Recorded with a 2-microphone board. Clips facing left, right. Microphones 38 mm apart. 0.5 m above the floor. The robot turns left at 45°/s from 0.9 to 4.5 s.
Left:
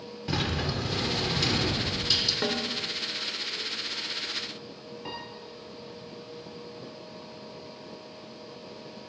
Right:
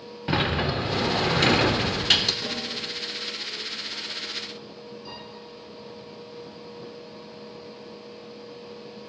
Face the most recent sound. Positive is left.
turn(degrees=50)  # may be behind; listen again after turning